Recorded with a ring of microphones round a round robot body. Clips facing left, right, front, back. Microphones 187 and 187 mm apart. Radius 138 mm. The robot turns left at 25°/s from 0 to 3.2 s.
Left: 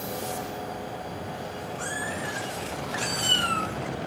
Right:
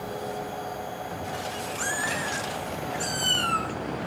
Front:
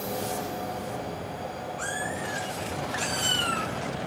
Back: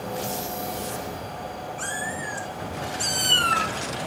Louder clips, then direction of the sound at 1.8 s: Even, even; 115° right.